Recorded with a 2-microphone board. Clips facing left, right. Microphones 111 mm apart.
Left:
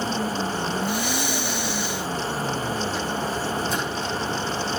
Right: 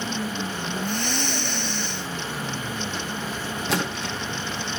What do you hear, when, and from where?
0.8 s breathing: 10° left (ahead or behind), 1.3 m
3.7 s a splash: 80° right, 4 m